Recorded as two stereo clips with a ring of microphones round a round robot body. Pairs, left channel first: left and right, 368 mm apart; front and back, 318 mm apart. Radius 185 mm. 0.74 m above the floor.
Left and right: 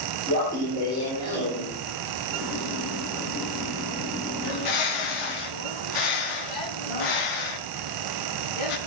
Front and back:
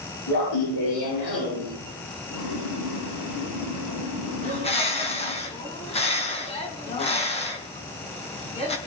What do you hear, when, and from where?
0.3 s laughter: 10° left, 10 m; by 1.7 s 15° left, 11 m
2.3 s boiling: straight ahead, 9 m
4.4 s a bird: 70° left, 3.5 m